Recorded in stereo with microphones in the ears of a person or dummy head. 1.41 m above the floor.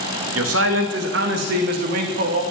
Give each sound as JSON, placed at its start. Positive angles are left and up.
{"t": 0.3, "sound": "a man speaking", "side_deg": -80, "distance_m": 2.5}